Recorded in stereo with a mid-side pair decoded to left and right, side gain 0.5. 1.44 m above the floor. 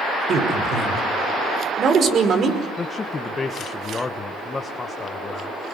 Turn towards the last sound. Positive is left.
turn(degrees=30)